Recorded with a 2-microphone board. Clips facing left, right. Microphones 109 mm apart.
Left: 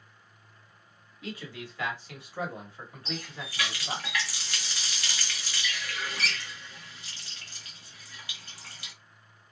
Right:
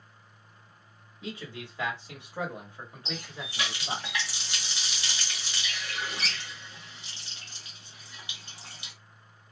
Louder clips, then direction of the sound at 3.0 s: Left 2 dB; 20° right (ahead or behind).